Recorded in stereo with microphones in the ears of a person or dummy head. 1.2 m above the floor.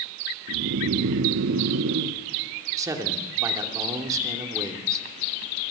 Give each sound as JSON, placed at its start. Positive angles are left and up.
{"t": 0.5, "sound": "snoring", "side_deg": -65, "distance_m": 1.3}
{"t": 2.8, "sound": "a man speaking", "side_deg": -15, "distance_m": 2.5}